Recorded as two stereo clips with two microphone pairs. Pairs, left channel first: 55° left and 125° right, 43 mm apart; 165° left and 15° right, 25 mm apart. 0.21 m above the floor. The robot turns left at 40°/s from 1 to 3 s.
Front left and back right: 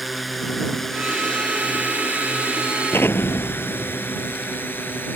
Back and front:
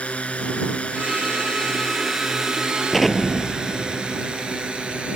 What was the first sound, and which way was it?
A drone, 150° left.